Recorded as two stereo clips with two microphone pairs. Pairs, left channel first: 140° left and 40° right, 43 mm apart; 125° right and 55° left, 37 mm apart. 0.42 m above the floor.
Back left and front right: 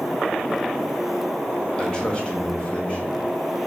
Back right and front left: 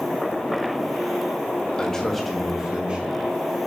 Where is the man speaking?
170° right, 1.5 m; by 3.6 s 80° left, 2.0 m.